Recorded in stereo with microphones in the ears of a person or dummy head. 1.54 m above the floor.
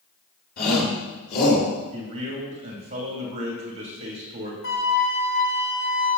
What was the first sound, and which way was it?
A shout, 50° left (ahead or behind).